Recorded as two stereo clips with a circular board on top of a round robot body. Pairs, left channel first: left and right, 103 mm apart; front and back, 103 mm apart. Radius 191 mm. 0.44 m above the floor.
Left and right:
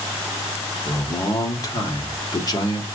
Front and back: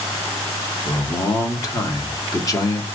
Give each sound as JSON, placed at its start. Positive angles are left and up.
{"t": 0.8, "sound": "a man speaking", "azimuth_deg": 50, "distance_m": 1.8}